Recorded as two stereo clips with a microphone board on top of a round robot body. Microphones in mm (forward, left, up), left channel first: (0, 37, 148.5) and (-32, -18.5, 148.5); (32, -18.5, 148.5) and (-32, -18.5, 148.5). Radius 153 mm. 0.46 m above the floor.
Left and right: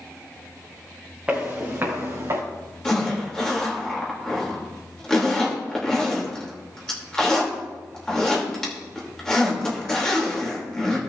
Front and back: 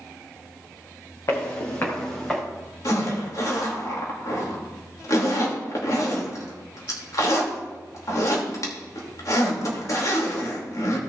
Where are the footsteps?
45° right, 3.5 m; by 2.4 s 75° right, 3 m.